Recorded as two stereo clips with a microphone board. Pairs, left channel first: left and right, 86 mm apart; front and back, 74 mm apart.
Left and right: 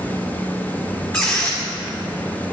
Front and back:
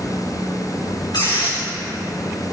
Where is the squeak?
30° left, 3.5 m.